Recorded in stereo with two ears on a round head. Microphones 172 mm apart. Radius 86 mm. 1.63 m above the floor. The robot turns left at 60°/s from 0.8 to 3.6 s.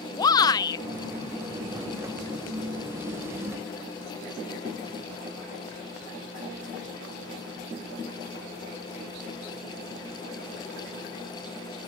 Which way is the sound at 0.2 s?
20° left (ahead or behind).